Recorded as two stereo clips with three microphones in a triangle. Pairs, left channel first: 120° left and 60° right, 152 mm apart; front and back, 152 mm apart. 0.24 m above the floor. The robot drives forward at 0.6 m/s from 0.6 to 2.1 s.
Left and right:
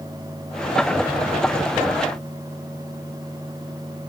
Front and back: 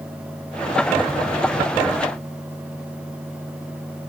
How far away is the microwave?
I don't hear a microwave.